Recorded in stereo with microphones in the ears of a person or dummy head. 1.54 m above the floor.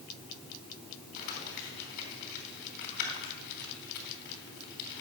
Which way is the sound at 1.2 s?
60° left (ahead or behind).